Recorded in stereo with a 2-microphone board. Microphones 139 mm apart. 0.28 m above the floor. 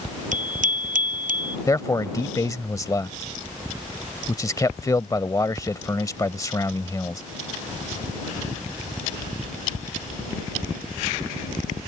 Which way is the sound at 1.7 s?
25° left (ahead or behind).